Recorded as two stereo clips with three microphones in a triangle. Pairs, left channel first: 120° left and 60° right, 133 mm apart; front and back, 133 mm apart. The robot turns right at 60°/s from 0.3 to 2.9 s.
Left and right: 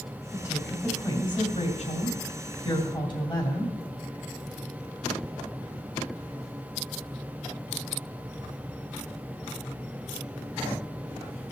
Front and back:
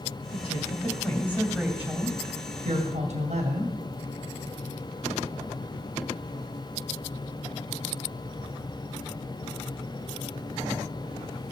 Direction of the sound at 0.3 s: 15° left.